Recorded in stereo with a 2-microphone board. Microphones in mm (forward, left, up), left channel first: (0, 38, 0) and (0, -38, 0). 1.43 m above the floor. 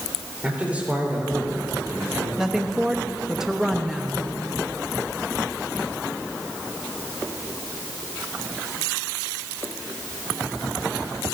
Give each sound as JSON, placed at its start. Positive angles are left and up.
{"t": 0.4, "sound": "a man speaking", "side_deg": -15, "distance_m": 4.0}
{"t": 2.4, "sound": "a woman speaking", "side_deg": -5, "distance_m": 1.0}